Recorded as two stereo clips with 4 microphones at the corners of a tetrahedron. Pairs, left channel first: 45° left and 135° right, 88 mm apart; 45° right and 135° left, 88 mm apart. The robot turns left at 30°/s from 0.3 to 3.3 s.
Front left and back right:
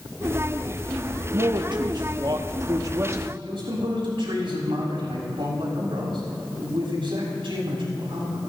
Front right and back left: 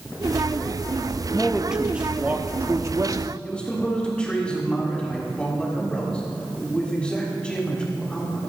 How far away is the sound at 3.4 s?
About 6.5 m.